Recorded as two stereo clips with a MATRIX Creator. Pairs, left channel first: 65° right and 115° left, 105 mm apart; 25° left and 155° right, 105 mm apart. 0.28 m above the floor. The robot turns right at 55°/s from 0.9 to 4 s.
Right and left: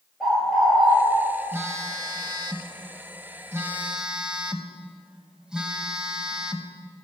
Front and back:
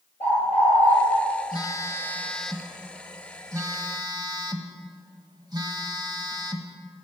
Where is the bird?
20° left, 6 m; by 0.9 s 25° left, 6 m.